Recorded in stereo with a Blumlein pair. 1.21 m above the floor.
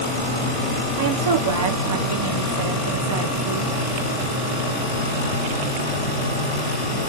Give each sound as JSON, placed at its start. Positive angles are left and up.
{"t": 1.0, "sound": "a woman speaking", "azimuth_deg": -65, "distance_m": 1.0}